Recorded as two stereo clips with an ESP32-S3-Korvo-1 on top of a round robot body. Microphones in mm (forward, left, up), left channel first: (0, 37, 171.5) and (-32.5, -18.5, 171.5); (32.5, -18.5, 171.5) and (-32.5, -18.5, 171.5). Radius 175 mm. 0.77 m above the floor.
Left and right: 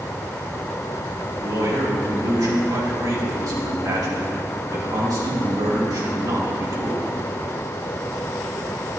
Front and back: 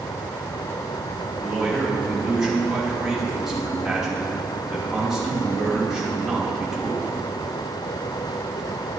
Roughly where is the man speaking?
Right.